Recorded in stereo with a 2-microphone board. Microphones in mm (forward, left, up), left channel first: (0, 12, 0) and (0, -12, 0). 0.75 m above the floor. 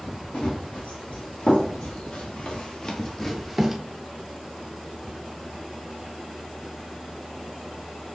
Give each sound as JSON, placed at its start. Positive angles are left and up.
{"t": 0.3, "sound": "running footsteps", "side_deg": 70, "distance_m": 2.0}